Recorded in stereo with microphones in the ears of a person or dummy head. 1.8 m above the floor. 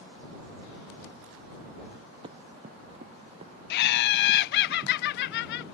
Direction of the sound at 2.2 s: 25° right (ahead or behind).